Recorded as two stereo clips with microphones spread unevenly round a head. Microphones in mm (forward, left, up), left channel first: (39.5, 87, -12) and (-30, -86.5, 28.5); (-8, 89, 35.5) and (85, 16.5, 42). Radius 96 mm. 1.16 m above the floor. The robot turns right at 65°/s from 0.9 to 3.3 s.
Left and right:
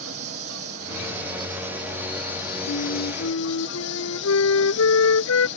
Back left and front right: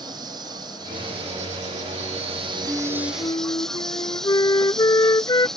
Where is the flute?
45° left; by 5.5 s 85° left.